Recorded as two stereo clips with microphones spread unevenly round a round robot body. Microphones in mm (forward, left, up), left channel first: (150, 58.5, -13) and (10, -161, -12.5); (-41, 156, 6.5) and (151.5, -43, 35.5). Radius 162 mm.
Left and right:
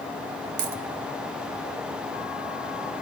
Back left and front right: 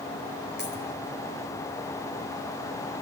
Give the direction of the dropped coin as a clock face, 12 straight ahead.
4 o'clock.